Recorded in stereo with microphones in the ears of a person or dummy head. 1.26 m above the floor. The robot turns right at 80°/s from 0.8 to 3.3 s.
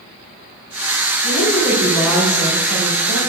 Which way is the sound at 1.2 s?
95° left.